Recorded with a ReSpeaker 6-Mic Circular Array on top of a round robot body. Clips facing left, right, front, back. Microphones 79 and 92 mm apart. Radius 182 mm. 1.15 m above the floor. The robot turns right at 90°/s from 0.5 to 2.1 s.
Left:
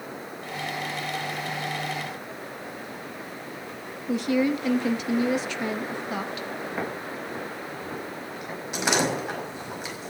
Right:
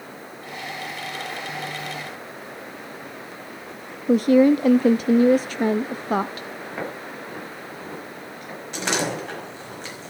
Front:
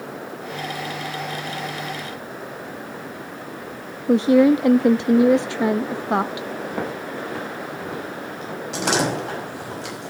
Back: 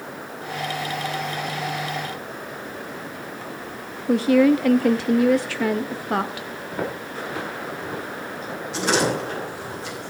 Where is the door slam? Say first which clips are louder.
Left 1 dB, even; 10° left, 6 m.